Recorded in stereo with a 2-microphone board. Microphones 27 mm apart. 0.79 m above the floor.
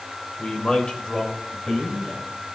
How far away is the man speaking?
About 3.5 m.